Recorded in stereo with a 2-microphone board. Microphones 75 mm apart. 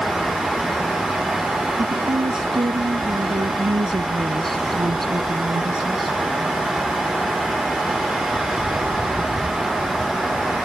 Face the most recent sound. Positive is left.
turn(degrees=-85)